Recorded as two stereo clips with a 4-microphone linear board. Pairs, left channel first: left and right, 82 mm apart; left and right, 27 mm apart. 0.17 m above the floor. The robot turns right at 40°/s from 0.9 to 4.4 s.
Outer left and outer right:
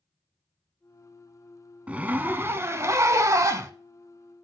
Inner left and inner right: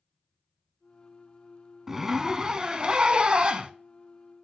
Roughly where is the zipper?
Behind right.